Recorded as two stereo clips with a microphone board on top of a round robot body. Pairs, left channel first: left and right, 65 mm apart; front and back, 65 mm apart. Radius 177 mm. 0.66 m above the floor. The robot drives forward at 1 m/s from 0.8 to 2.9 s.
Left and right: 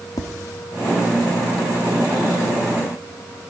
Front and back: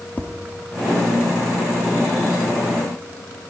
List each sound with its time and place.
0.2 s tapping: 65° left, 1.1 m